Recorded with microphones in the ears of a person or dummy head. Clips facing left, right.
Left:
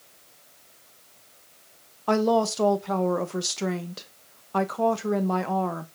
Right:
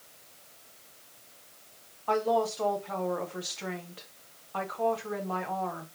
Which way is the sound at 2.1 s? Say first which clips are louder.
Left 5 dB; 60° left (ahead or behind).